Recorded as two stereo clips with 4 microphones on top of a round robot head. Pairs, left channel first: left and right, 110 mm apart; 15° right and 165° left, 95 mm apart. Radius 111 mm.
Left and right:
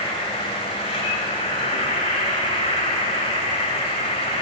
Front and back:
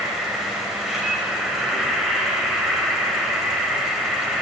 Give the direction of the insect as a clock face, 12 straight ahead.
9 o'clock.